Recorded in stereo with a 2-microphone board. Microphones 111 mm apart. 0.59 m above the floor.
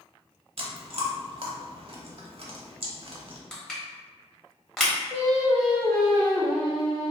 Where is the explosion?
I don't hear an explosion.